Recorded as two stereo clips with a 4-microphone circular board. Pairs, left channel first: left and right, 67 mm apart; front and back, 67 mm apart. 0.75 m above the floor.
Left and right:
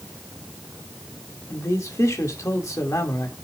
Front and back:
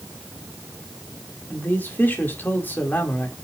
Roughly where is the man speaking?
Ahead left.